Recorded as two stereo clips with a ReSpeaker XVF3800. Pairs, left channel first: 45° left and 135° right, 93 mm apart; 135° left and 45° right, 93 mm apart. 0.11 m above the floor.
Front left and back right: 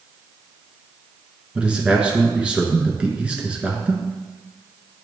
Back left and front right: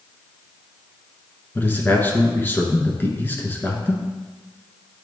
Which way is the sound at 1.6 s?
165° left.